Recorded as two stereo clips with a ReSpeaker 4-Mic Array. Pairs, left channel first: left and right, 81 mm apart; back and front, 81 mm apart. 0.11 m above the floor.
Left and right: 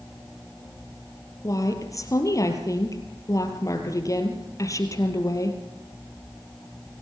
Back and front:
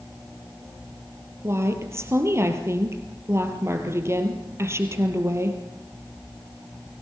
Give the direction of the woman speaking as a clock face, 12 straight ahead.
10 o'clock.